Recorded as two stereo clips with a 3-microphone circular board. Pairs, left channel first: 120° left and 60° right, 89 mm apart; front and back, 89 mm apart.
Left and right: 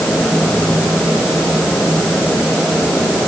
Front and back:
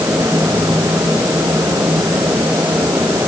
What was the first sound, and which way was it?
Only background noise.